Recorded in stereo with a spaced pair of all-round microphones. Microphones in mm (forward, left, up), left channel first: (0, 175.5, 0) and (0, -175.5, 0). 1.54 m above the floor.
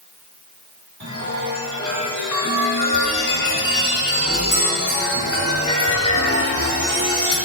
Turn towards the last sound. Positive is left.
turn(degrees=55)  # may be behind; listen again after turning